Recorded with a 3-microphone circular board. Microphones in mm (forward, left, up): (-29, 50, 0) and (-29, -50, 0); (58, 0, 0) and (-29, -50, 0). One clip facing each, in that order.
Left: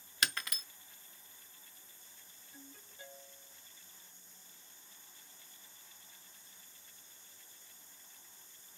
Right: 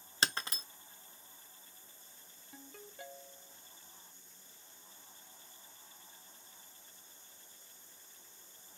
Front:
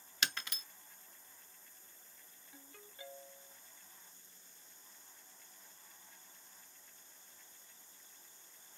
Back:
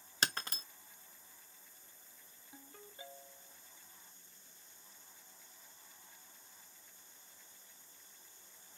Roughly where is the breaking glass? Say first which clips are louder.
Right 2 dB, back 3 dB; behind right.